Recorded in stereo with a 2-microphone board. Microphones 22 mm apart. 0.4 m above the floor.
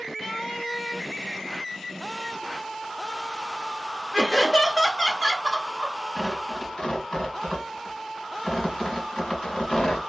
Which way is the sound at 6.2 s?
45° left (ahead or behind).